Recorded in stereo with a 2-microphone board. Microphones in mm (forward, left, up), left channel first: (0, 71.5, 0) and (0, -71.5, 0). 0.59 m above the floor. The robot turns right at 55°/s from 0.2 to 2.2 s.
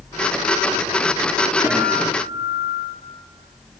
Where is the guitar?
165° left, 5.5 m; by 3.0 s 165° right, 5.5 m.